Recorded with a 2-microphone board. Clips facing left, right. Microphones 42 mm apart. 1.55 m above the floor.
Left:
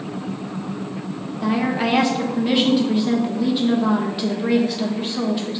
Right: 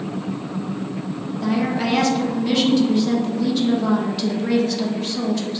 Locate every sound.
1.4 s a woman speaking: 15° left (ahead or behind), 1.3 m